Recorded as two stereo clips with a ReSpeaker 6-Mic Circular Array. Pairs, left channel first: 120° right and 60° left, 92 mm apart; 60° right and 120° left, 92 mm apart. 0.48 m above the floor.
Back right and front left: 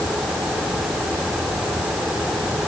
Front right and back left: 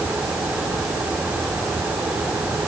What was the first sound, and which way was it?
Only background noise.